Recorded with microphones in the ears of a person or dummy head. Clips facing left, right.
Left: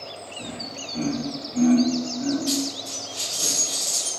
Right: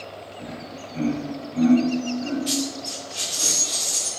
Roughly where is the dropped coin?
Right.